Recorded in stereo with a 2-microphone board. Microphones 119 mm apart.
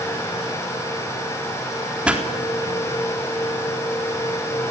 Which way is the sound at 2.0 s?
10° right (ahead or behind).